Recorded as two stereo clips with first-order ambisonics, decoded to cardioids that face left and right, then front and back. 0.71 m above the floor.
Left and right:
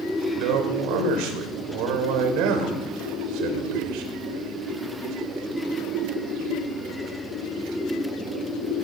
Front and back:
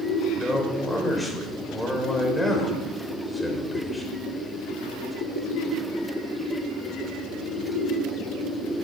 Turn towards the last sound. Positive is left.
turn(degrees=-85)